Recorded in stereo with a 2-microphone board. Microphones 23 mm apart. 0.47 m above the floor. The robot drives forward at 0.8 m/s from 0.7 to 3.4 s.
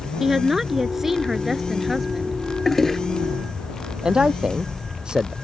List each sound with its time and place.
0.2 s a woman speaking: 15° right (ahead or behind); by 2.4 s 10° right (ahead or behind)
2.6 s a toilet flushing: 10° left (ahead or behind)
4.0 s a man speaking: 35° right (ahead or behind)